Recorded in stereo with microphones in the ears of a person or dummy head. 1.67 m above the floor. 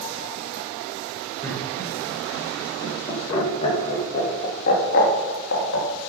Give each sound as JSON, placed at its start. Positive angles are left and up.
{"t": 1.4, "sound": "laughter", "side_deg": 5, "distance_m": 6.5}